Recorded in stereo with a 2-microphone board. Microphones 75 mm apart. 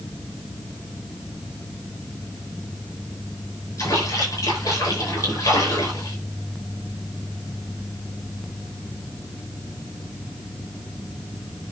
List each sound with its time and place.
3.8 s a splash: 50° left (ahead or behind), 6 m